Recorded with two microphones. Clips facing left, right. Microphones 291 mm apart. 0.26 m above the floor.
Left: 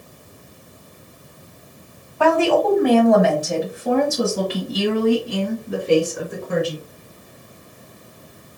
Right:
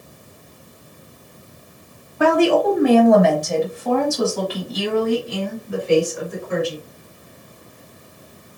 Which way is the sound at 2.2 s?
20° right (ahead or behind).